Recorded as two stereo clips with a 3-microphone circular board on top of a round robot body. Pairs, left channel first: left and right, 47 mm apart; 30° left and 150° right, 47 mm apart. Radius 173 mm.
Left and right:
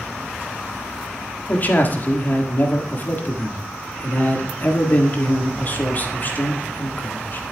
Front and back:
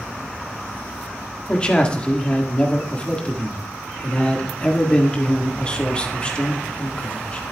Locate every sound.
1.5 s a man speaking: 85° left, 1.7 m